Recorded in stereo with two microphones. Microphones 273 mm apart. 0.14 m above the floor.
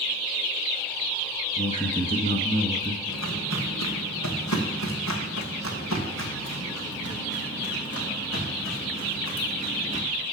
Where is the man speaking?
25° left (ahead or behind), 1.1 m.